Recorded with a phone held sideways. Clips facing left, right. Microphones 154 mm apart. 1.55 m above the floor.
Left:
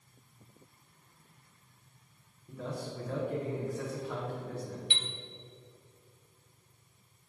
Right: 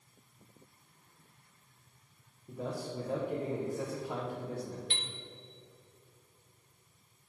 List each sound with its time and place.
2.5 s a man speaking: 25° right (ahead or behind), 1.1 m
4.9 s a chime: 45° right (ahead or behind), 0.7 m